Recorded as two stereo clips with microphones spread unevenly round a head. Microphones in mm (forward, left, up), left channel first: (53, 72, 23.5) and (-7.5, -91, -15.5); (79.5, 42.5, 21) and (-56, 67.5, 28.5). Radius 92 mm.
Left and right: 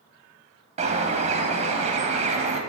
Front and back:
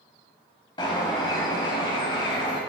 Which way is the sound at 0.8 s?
65° right.